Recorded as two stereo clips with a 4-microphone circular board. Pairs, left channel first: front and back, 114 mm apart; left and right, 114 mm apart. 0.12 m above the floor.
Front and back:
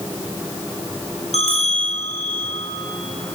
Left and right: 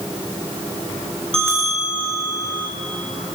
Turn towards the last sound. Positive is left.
turn(degrees=5)